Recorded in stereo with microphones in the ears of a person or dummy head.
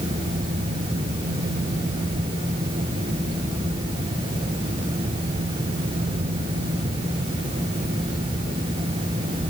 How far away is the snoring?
No snoring in this recording.